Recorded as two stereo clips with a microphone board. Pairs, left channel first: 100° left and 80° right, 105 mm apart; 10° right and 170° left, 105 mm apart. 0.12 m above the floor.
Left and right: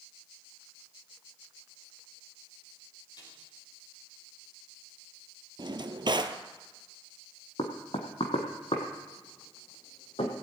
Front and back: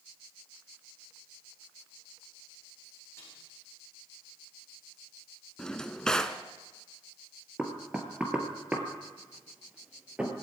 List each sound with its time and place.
3.2 s a snare drum: 55° left, 6.5 m
5.6 s a drawer: 95° right, 0.8 m
7.6 s knocking: 90° left, 2 m